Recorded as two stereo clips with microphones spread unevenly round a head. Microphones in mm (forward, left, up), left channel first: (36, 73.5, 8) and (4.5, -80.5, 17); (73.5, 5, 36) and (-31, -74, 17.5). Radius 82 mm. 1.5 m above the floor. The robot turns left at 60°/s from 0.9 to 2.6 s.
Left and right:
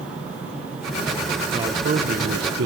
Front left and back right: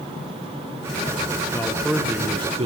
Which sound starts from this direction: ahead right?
A man speaking, at 1.5 s.